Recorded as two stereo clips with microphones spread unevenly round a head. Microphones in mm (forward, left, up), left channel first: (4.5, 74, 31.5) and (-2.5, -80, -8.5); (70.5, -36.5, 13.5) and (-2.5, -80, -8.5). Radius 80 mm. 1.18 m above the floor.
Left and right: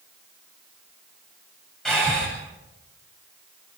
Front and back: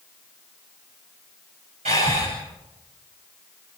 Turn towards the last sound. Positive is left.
turn(degrees=175)